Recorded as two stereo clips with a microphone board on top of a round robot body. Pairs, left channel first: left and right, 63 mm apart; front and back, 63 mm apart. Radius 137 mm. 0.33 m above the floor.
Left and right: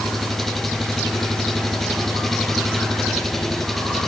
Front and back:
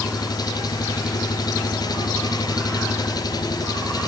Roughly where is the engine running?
Ahead.